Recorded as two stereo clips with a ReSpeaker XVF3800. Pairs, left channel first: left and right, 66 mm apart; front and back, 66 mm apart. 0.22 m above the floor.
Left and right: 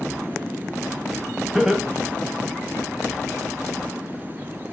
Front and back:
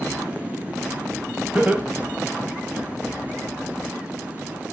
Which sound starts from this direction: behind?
Laughter, at 1.6 s.